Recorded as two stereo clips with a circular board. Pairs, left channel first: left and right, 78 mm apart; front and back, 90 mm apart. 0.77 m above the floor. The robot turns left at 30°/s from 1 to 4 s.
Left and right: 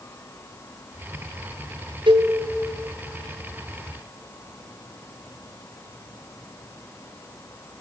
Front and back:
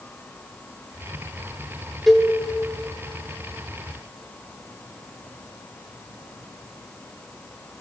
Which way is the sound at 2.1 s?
90° right.